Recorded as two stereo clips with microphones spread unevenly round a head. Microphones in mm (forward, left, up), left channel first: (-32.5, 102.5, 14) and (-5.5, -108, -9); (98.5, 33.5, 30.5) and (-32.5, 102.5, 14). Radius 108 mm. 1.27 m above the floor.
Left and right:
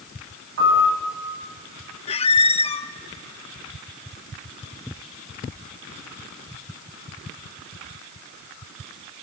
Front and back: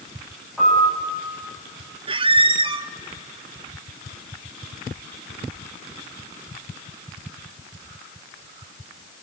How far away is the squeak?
About 0.8 m.